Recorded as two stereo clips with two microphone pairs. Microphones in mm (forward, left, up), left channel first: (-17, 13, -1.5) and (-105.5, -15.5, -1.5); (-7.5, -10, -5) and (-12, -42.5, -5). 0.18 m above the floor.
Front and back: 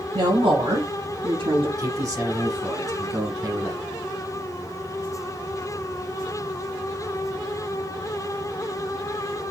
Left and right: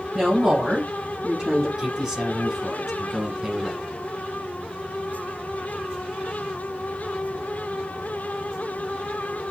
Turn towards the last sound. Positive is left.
turn(degrees=-160)